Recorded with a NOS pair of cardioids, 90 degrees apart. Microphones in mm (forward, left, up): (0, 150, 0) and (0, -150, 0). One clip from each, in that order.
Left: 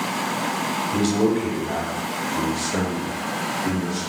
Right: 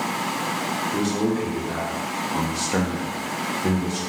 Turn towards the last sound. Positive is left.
turn(degrees=-75)